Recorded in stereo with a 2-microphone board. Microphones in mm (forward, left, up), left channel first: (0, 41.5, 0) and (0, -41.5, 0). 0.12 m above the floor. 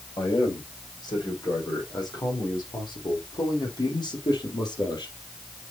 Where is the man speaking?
50° left (ahead or behind), 6 m; by 5.2 s 55° left (ahead or behind), 3 m.